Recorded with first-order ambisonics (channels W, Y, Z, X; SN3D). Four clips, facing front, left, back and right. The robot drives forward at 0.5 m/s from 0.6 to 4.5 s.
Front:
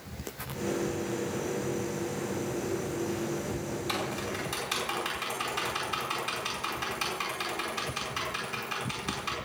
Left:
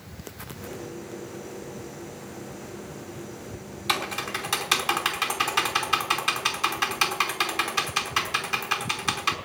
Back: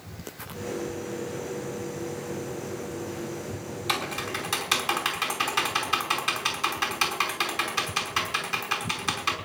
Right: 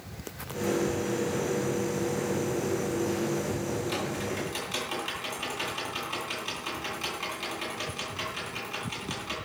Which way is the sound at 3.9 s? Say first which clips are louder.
Left 4 dB, back 6 dB; 120° left.